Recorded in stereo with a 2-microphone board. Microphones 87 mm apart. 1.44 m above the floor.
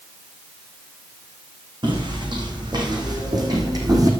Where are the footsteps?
60° right (ahead or behind), 4.5 m; by 4.1 s 45° right (ahead or behind), 3.5 m.